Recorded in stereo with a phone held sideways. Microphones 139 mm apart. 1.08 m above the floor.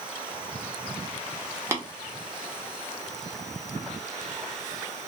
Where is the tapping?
20° right (ahead or behind), 0.7 m.